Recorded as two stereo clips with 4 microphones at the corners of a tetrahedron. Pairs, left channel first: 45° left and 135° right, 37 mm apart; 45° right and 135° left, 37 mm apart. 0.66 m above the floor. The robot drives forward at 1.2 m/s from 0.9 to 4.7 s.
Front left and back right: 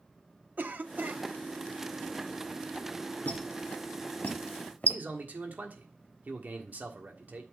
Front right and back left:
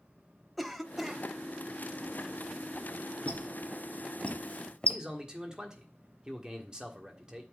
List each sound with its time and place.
0.6 s a cough: 140° right, 0.9 m; by 1.2 s 150° right, 1.2 m
3.2 s a squeak: straight ahead, 2.5 m; by 5.0 s 5° left, 0.6 m
4.9 s a man speaking: 160° right, 1.4 m